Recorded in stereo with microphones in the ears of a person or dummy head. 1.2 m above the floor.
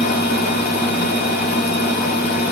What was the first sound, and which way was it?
A fan, 60° left (ahead or behind).